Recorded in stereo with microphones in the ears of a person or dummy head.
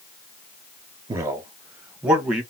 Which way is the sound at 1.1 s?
20° right (ahead or behind).